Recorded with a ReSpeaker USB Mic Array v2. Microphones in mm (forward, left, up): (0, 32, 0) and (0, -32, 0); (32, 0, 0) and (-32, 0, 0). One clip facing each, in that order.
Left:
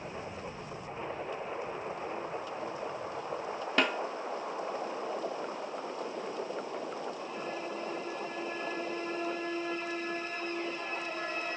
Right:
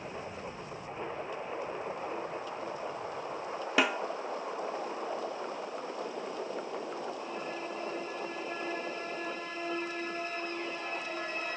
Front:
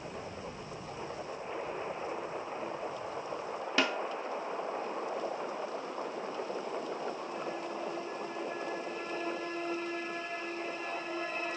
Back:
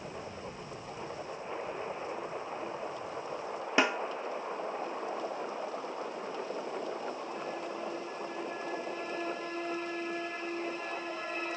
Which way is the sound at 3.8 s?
160° right.